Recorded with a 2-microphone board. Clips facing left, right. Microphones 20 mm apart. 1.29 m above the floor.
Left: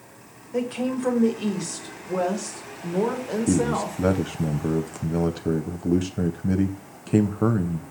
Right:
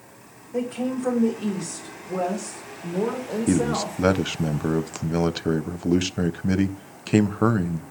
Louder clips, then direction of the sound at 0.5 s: Left 1 dB; 70° left (ahead or behind).